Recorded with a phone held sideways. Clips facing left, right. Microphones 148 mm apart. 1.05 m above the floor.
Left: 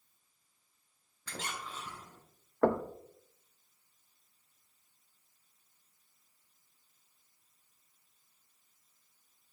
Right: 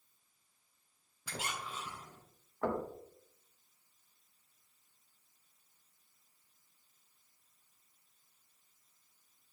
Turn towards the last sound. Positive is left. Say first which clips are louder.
# left 7 dB
turn(degrees=65)  # may be behind; listen again after turning